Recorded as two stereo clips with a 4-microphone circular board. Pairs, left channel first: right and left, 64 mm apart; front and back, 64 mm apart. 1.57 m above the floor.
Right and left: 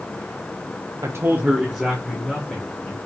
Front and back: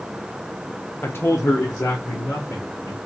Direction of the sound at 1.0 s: 60° left.